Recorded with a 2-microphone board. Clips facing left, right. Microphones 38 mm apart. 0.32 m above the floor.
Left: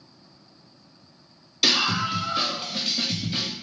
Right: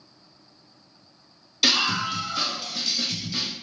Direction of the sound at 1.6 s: 5° left (ahead or behind).